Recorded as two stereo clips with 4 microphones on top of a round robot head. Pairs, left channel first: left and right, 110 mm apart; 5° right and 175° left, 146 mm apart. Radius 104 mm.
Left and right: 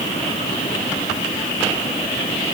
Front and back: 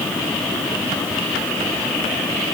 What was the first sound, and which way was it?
Only background noise.